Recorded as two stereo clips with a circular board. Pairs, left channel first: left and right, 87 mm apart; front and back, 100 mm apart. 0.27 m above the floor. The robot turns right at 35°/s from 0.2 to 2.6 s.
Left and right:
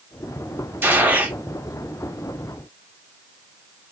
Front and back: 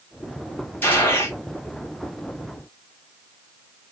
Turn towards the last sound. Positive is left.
turn(degrees=15)